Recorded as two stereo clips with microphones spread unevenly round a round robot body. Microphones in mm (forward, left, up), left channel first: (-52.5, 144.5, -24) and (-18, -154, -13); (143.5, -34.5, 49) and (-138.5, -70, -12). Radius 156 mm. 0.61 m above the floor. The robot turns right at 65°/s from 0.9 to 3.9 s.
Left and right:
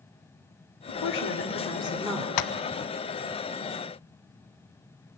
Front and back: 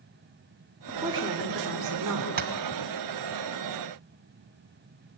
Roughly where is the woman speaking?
Left.